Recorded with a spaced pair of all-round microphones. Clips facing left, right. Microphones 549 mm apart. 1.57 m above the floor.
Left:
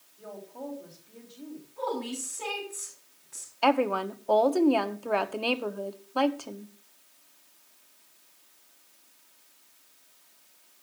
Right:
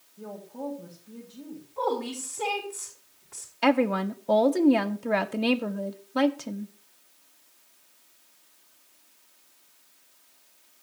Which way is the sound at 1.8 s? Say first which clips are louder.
Right 4 dB; 85° right.